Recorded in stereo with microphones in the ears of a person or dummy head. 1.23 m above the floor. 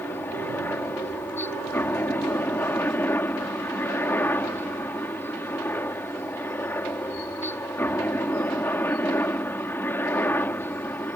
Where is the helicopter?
10° left (ahead or behind).